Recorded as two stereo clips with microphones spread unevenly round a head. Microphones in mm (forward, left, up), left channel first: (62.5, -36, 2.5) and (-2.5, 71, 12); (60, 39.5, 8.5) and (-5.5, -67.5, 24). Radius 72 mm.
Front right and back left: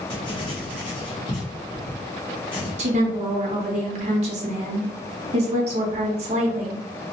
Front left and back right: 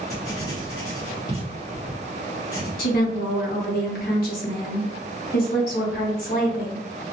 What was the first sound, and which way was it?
Writing, 5° right.